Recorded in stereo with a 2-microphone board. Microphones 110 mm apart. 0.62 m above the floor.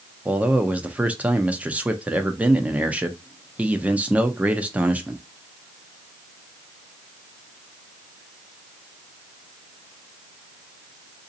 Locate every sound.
0.2 s a man speaking: 10° right (ahead or behind), 0.6 m